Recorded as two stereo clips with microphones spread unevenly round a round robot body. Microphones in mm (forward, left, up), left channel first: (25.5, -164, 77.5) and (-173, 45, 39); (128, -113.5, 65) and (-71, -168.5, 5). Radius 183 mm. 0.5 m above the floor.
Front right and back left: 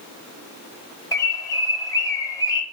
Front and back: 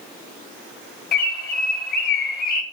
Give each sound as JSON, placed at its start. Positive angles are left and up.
{"t": 1.1, "sound": "a bird", "azimuth_deg": 35, "distance_m": 1.3}